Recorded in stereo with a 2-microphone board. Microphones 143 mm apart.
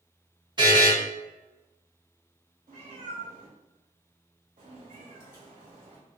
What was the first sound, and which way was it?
A buzzer, 30° right (ahead or behind).